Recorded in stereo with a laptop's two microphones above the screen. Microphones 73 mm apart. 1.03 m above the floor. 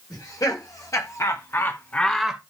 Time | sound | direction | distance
0.1 | laughter | 55° left (ahead or behind) | 3.5 m